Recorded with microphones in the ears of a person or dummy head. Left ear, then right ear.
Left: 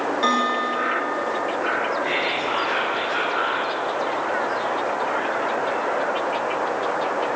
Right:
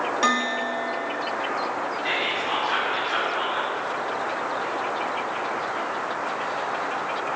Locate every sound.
0.2 s a bell: 25° right (ahead or behind), 1.6 m
2.0 s whispering: 25° right (ahead or behind), 3.5 m